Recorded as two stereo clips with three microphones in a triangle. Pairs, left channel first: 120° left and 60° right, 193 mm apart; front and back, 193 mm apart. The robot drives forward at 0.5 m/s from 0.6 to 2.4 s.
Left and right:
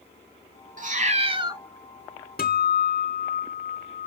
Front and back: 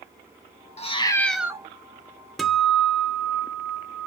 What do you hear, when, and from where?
0.8 s a cat meowing: 40° right, 0.5 m; by 1.6 s 115° right, 0.5 m
2.4 s a guitar: 90° left, 0.5 m